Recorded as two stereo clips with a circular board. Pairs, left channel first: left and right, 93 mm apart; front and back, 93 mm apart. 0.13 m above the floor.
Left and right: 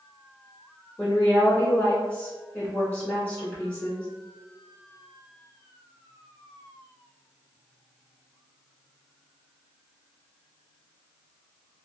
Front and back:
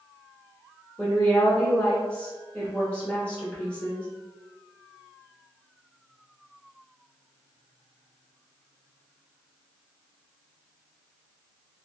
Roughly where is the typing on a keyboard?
No typing on a keyboard in this recording.